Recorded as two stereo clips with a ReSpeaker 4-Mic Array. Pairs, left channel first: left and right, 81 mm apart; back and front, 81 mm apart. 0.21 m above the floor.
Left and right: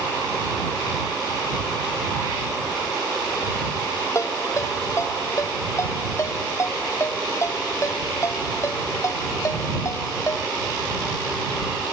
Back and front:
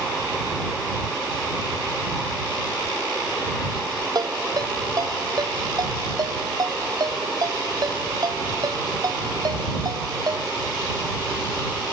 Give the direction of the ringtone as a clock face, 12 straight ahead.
11 o'clock.